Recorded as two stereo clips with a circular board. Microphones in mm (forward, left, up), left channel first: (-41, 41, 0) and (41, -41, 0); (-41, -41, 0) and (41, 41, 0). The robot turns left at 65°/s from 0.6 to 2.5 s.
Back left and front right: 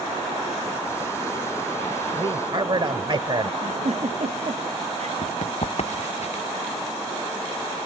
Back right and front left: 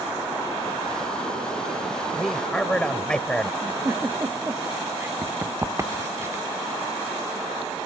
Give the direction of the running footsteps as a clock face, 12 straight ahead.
8 o'clock.